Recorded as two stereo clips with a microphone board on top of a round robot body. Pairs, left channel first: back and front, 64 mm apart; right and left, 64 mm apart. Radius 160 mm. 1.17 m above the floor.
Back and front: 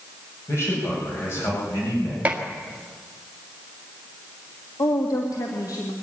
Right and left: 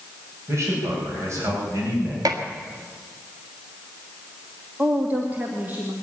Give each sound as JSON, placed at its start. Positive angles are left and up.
{"t": 0.5, "sound": "a man speaking", "azimuth_deg": 135, "distance_m": 7.0}
{"t": 2.2, "sound": "dishes clattering", "azimuth_deg": 70, "distance_m": 1.7}
{"t": 4.8, "sound": "a woman speaking", "azimuth_deg": 155, "distance_m": 2.0}